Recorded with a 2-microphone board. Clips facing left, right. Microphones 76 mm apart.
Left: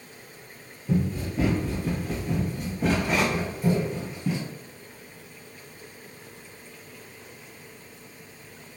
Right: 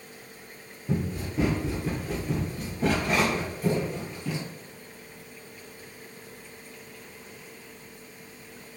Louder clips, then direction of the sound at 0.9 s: Left 3 dB; 20° right (ahead or behind).